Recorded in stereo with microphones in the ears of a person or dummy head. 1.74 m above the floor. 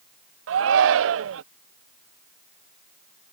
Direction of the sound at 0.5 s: 80° right.